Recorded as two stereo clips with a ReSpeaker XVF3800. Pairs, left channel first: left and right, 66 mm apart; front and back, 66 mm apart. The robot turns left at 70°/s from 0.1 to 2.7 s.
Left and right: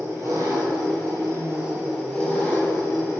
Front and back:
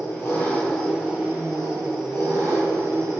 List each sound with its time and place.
0.0 s an engine running: 40° right, 2.5 m; by 3.2 s 140° left, 2.5 m